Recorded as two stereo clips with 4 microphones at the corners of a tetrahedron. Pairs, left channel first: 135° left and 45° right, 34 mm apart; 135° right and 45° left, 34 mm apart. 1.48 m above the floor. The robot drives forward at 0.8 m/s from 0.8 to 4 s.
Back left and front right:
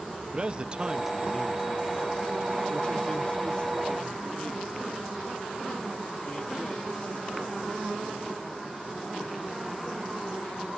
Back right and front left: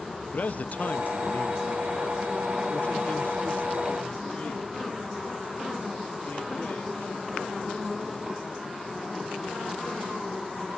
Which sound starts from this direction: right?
A man speaking, at 0.3 s.